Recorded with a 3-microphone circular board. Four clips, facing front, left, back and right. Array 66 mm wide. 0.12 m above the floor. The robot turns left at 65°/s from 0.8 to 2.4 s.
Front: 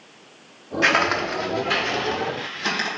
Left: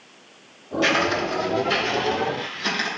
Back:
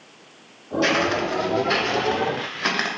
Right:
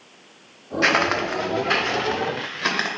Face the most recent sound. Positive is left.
turn(degrees=-140)